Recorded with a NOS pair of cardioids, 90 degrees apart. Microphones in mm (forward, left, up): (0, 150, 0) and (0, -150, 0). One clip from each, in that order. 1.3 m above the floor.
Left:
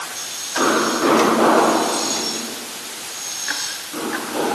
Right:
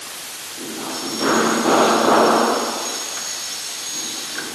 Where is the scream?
No scream in this recording.